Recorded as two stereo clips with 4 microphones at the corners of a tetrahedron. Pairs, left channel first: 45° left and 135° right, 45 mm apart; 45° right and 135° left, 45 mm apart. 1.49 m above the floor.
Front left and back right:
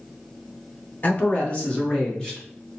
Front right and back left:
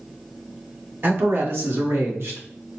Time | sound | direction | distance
1.0 | a man speaking | 95° left | 1.2 m